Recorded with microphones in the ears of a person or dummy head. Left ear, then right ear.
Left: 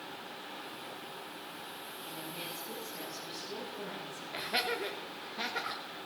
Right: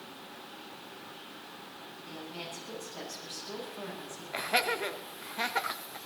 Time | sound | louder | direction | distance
2.0 | a woman speaking | right 1 dB | 50° right (ahead or behind) | 9 m
4.3 | laughter | right 4 dB | 20° right (ahead or behind) | 1.3 m